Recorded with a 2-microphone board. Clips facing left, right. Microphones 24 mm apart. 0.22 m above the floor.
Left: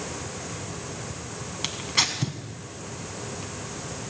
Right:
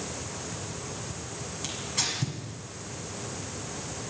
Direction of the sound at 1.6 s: 50° left (ahead or behind).